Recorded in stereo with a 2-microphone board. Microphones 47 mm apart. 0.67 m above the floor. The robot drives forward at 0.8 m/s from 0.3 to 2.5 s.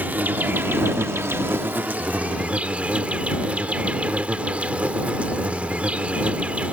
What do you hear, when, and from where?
0.0 s an insect: 40° right (ahead or behind); by 6.8 s 30° right (ahead or behind)